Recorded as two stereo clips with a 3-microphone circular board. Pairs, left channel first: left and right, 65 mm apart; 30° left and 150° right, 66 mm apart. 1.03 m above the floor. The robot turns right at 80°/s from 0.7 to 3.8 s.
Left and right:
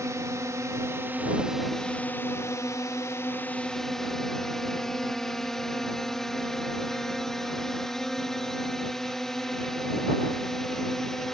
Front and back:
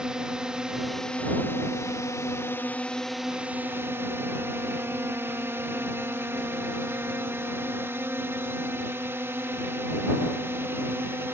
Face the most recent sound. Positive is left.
turn(degrees=175)